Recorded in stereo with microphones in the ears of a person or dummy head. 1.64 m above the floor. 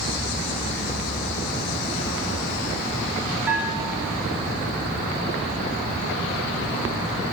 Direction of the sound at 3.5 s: 10° right (ahead or behind).